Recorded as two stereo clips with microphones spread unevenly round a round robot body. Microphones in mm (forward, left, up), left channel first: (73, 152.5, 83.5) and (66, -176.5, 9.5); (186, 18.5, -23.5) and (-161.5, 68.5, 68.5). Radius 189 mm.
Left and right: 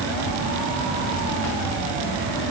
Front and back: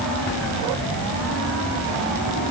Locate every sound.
Only background noise.